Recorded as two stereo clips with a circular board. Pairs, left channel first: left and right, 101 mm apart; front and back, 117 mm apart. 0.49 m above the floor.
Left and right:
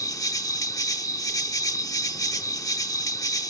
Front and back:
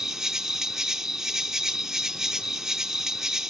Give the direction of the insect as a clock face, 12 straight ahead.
9 o'clock.